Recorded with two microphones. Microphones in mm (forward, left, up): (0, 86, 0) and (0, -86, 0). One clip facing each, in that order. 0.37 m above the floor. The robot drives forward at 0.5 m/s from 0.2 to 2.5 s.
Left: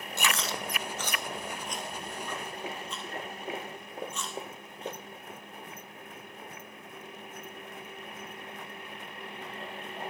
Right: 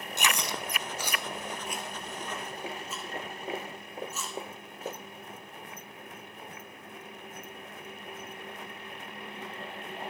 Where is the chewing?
20° right (ahead or behind), 0.6 m; by 5.0 s 5° right (ahead or behind), 1.7 m.